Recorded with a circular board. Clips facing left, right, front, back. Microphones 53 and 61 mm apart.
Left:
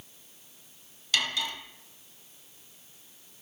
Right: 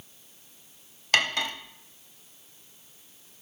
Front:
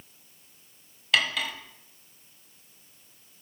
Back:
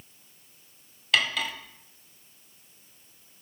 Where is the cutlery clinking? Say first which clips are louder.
Right 5 dB, even; 90° right, 0.7 m.